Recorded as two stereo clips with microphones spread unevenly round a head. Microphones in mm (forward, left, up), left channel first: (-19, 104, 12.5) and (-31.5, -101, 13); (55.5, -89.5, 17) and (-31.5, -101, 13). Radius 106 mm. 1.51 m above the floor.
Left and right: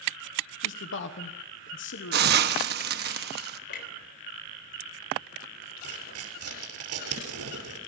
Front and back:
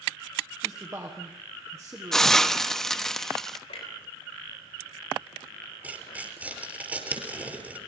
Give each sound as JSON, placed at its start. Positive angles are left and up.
{"t": 0.6, "sound": "a man speaking", "azimuth_deg": 115, "distance_m": 1.1}
{"t": 2.1, "sound": "a hiss", "azimuth_deg": -75, "distance_m": 1.1}
{"t": 3.7, "sound": "a clunk", "azimuth_deg": 40, "distance_m": 3.0}
{"t": 5.8, "sound": "tearing paper", "azimuth_deg": -100, "distance_m": 6.5}